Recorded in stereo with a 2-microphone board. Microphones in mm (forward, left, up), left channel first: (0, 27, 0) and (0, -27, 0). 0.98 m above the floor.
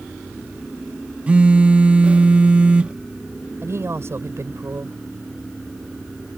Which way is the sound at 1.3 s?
25° right (ahead or behind).